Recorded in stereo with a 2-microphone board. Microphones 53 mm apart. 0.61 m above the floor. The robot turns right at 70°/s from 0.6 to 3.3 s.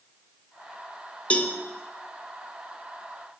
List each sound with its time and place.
1.3 s a cowbell: 25° left (ahead or behind), 0.5 m